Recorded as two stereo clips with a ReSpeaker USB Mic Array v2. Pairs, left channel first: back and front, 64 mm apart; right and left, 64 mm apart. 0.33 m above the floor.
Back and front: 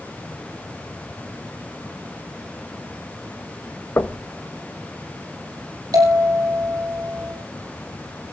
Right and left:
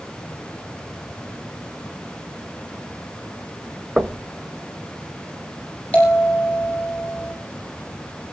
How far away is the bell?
About 8.5 m.